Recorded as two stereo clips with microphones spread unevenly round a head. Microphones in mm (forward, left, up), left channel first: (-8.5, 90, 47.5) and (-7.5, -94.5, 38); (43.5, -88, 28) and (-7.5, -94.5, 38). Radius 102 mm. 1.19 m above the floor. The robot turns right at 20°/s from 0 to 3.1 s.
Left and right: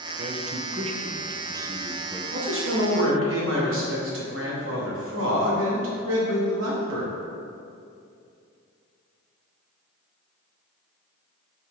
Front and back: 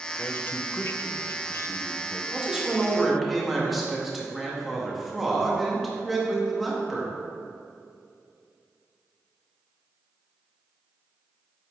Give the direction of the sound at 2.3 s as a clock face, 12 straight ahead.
3 o'clock.